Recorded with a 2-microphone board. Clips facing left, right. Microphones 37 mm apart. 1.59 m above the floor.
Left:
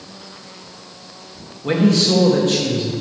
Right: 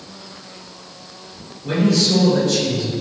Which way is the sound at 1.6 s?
70° left (ahead or behind).